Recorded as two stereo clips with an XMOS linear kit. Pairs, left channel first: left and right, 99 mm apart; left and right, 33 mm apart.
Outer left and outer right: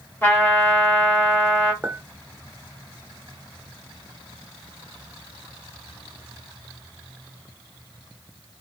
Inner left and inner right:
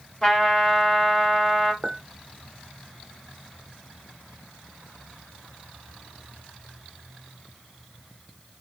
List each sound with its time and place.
0.2 s a trumpet: 20° left (ahead or behind), 2.5 m
1.8 s a clink: 15° right (ahead or behind), 0.9 m